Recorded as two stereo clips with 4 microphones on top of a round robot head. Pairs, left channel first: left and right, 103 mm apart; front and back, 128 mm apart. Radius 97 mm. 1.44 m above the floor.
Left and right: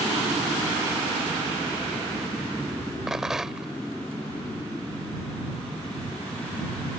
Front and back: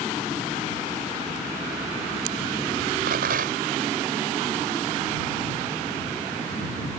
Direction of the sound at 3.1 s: 175° right.